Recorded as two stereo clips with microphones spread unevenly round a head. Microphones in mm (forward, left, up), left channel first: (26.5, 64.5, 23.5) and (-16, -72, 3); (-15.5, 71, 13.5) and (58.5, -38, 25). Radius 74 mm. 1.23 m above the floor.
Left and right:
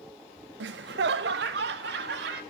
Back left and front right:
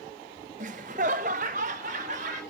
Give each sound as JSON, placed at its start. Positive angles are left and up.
{"t": 0.6, "sound": "laughter", "azimuth_deg": -100, "distance_m": 0.5}